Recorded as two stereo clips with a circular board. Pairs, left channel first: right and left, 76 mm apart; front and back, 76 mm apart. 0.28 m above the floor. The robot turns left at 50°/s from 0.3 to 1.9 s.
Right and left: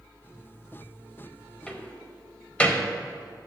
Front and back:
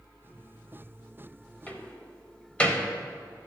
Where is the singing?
I don't hear singing.